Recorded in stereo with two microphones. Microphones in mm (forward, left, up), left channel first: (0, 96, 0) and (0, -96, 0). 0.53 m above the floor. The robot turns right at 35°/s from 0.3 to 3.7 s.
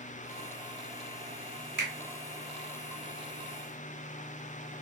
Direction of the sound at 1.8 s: 70° right (ahead or behind).